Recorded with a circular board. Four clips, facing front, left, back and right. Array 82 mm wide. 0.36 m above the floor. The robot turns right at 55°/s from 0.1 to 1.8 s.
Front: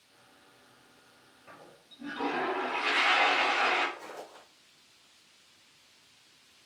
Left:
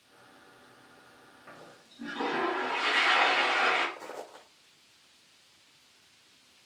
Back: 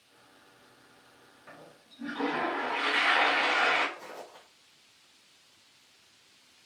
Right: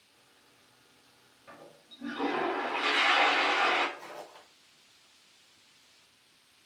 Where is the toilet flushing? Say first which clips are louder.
Even, back 1 dB; 130° left, 1.4 m; by 3.9 s 145° left, 1.4 m.